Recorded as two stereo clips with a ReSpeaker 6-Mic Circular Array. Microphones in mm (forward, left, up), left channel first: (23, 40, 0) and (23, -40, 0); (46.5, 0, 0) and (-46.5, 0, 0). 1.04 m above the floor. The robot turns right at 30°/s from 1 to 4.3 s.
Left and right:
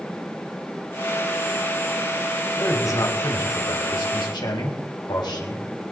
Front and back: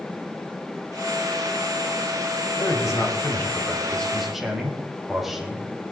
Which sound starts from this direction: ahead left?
A man speaking, at 2.6 s.